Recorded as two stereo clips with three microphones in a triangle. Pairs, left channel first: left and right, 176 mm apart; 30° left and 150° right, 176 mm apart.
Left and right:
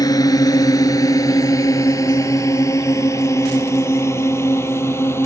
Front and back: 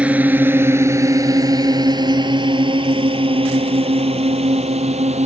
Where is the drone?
135° left; by 5.3 s 165° left.